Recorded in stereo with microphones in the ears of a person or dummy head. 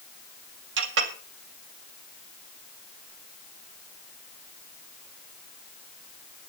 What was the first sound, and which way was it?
A clink, 70° right (ahead or behind).